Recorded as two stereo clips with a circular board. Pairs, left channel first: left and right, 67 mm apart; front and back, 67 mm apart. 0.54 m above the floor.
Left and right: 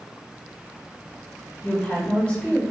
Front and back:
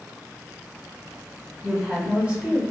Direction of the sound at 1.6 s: 130° left.